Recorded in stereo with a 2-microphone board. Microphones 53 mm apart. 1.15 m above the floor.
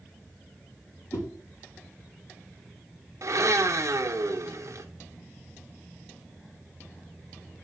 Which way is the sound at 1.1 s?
75° left (ahead or behind).